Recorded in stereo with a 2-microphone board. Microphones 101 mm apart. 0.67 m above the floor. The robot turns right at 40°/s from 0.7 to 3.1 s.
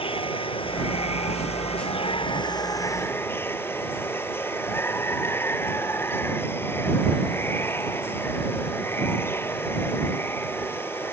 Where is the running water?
60° left; by 11.1 s 160° left.